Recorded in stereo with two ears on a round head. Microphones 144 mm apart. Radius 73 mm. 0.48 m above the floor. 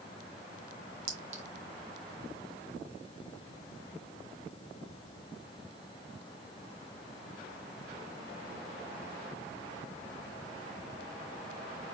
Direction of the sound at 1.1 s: 45° right (ahead or behind).